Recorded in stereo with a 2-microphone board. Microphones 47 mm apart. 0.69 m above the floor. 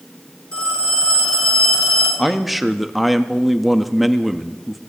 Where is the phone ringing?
20° left (ahead or behind), 7.5 m.